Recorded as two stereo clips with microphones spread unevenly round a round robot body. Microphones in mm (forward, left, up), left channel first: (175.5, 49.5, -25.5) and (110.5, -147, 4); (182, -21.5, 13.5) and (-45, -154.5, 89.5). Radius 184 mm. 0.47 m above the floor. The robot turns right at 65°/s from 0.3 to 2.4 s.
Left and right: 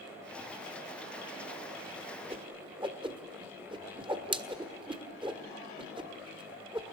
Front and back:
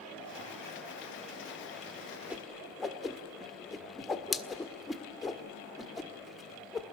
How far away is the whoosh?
About 1.6 m.